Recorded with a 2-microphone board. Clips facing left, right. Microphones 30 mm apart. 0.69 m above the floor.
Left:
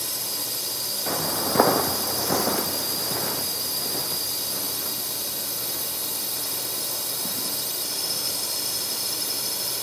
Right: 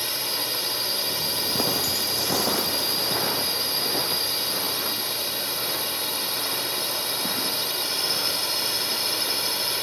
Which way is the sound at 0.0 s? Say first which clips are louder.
Right 4 dB; 30° right (ahead or behind).